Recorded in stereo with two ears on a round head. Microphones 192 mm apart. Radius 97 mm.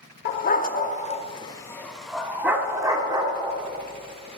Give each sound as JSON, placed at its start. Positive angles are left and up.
{"t": 0.2, "sound": "a dog barking", "side_deg": 40, "distance_m": 0.8}